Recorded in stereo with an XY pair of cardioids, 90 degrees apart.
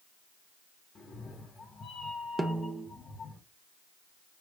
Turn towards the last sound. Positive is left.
turn(degrees=-20)